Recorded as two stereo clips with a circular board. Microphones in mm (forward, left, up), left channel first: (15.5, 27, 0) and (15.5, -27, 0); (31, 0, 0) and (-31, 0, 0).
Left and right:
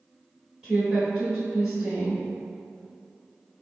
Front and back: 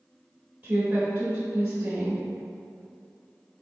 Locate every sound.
0.6 s a woman speaking: 160° right, 1.2 m